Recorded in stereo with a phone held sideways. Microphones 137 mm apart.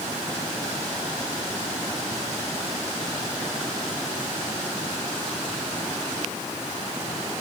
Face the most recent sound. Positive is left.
No sound to turn to.